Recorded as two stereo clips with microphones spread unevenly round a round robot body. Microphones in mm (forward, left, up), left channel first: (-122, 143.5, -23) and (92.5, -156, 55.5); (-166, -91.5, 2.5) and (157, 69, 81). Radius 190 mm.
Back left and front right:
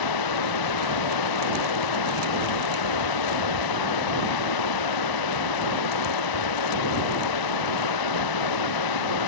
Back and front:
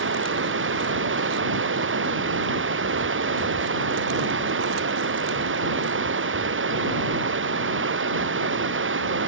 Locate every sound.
0.0 s running water: 85° left